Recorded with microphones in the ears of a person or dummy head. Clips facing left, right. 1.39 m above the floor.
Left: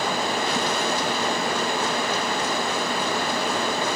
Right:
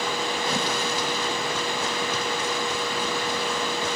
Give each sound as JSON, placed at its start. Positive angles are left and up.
{"t": 0.0, "sound": "running water", "side_deg": 45, "distance_m": 0.8}